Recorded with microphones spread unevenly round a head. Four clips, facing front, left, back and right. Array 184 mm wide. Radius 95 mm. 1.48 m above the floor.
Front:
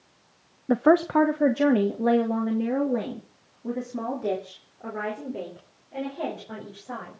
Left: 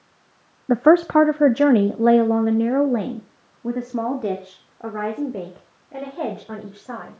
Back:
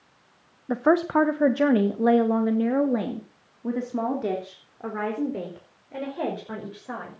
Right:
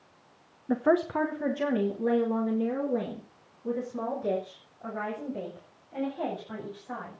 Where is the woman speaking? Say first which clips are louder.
Left 10 dB, front 1 dB; 70° left, 0.8 m; by 7.2 s 110° left, 6.5 m.